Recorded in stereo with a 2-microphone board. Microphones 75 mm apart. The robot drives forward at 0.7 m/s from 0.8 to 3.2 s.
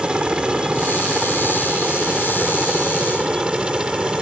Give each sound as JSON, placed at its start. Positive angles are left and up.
{"t": 0.0, "sound": "a helicopter", "side_deg": -15}